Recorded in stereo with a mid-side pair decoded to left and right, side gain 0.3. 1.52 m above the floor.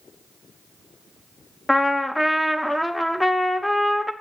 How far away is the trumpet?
About 1.0 m.